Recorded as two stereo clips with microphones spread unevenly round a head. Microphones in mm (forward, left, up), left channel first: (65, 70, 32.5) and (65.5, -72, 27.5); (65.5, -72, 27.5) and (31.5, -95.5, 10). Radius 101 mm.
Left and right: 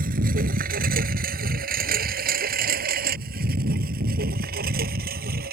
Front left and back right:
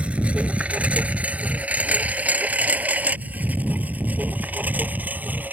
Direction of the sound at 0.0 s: 80° right.